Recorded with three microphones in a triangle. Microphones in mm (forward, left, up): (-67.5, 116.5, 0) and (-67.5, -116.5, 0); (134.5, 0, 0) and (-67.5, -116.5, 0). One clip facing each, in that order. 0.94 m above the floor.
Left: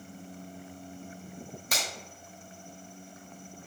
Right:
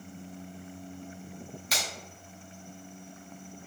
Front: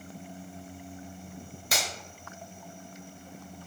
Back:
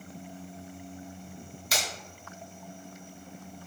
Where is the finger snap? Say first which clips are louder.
Left 1 dB, even; 60° left, 1.1 m.